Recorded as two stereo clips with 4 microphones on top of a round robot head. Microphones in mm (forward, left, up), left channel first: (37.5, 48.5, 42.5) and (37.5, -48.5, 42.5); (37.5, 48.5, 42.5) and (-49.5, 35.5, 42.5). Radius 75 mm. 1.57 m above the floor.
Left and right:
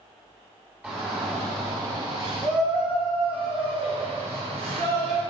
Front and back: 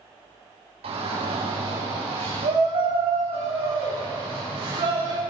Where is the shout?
170° right, 3.5 m; by 5.2 s 125° right, 6 m.